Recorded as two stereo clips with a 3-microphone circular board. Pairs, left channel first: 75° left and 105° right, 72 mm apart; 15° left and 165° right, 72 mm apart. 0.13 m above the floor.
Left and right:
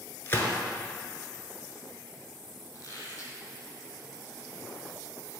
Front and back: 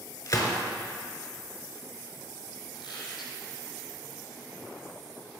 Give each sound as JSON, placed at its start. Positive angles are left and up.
{"t": 0.3, "sound": "a gunshot", "azimuth_deg": 25, "distance_m": 1.1}
{"t": 2.7, "sound": "a squeak", "azimuth_deg": 25, "distance_m": 1.9}